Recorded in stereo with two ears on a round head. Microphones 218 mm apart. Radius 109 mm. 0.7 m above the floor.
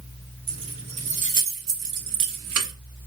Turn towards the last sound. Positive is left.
turn(degrees=-65)  # may be behind; listen again after turning